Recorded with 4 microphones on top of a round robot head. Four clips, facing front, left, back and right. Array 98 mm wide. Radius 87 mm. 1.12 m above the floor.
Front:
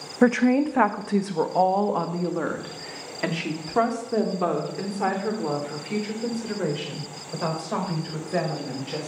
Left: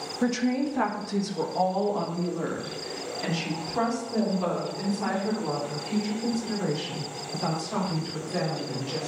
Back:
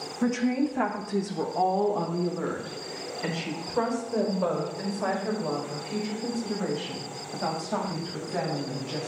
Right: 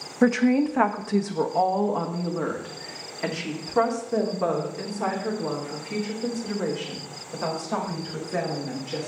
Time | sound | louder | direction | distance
0.2 | a woman speaking | right 6 dB, front 7 dB | 30° right | 0.8 m